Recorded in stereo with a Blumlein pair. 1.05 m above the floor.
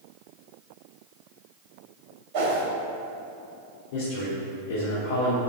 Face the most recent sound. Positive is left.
turn(degrees=50)